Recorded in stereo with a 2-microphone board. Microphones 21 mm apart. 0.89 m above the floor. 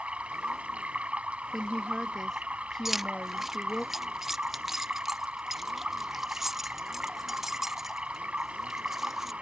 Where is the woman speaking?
10° left (ahead or behind).